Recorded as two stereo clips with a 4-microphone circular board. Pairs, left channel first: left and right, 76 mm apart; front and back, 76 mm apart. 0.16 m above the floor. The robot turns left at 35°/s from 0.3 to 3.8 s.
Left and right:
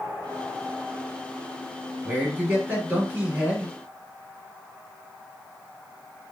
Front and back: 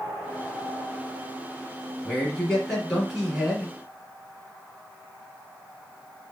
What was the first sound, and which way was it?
A man speaking, 55° right.